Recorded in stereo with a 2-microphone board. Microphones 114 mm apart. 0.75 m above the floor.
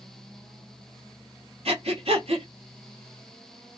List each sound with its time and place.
1.6 s breathing: 60° right (ahead or behind), 1.8 m